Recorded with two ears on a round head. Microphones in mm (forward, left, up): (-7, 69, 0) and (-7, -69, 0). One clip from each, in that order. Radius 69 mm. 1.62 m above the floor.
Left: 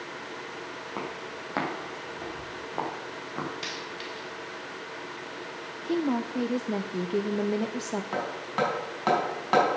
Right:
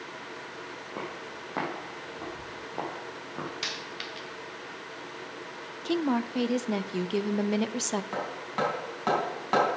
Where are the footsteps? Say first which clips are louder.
Left 2 dB; 50° left (ahead or behind), 4 m; by 3.5 s 25° left (ahead or behind), 5 m.